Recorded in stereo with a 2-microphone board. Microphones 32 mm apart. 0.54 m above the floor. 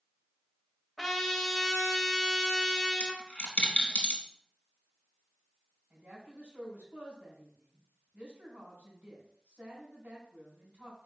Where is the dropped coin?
55° left (ahead or behind), 0.9 m.